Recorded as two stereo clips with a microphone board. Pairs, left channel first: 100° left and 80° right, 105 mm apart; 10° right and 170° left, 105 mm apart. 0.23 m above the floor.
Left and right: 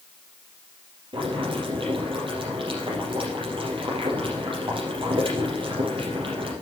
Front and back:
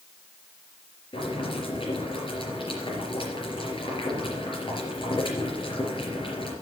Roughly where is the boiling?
Ahead right.